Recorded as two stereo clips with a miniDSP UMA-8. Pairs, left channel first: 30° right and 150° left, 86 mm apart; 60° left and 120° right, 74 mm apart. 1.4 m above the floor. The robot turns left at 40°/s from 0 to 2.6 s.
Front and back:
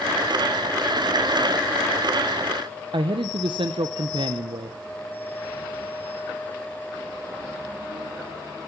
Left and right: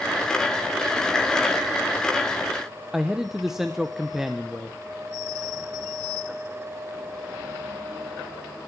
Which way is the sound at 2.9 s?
155° left.